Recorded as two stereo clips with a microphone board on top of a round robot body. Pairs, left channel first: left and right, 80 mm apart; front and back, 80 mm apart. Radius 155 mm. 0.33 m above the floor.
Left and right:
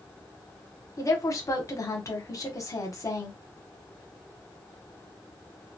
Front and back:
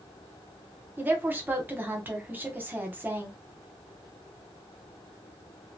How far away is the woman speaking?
About 1.2 m.